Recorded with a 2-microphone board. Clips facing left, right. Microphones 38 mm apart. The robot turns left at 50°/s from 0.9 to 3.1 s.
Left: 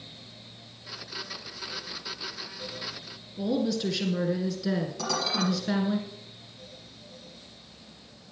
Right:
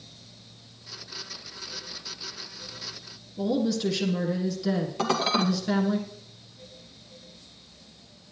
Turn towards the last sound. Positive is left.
turn(degrees=-40)  # may be behind; listen again after turning